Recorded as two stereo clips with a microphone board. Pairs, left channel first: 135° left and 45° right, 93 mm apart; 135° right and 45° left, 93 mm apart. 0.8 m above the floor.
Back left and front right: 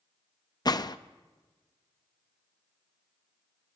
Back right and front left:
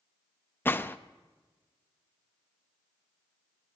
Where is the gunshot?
165° left, 0.5 m.